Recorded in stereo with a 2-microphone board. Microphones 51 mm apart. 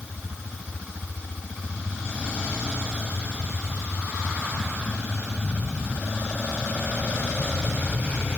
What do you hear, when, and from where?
Only background noise.